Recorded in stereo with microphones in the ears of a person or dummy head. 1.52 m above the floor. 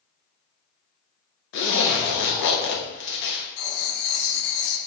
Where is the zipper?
60° left (ahead or behind), 0.6 m.